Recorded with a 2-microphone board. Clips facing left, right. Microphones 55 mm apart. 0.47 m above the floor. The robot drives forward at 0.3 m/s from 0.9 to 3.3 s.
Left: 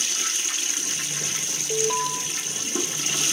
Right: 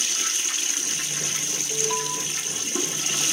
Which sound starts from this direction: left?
An alarm, at 1.7 s.